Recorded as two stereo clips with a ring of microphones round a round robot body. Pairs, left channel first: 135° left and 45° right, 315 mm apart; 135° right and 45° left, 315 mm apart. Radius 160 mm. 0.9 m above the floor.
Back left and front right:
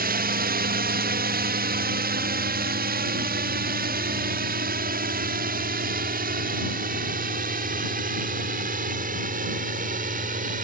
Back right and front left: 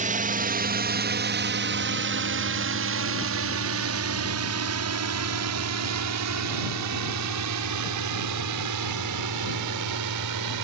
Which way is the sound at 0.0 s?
5° right.